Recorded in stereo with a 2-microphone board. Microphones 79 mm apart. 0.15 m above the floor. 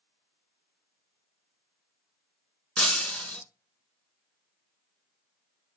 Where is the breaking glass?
15° left (ahead or behind), 1.0 m.